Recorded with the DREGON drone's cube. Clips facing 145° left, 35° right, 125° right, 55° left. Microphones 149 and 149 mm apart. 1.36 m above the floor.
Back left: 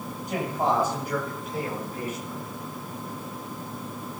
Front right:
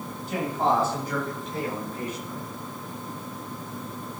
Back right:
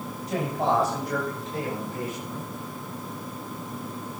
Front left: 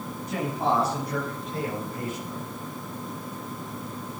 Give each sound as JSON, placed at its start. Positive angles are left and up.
{"t": 0.3, "sound": "a man speaking", "azimuth_deg": -140, "distance_m": 9.5}